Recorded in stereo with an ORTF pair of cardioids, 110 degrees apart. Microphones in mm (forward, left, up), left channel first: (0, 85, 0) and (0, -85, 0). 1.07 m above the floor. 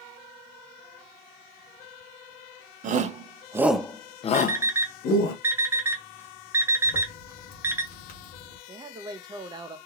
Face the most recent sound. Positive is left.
turn(degrees=-25)